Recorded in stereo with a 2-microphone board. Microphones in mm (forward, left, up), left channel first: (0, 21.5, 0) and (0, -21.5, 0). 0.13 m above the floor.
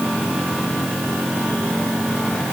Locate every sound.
Only background noise.